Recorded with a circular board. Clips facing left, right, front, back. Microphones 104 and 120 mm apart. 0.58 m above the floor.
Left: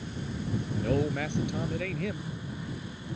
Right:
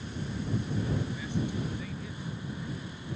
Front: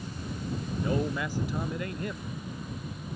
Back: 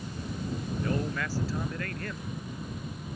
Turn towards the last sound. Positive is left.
turn(degrees=75)